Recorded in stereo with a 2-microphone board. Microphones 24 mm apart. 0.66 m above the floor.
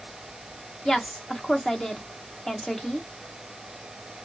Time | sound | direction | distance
0.8 | a woman speaking | 20° left (ahead or behind) | 0.8 m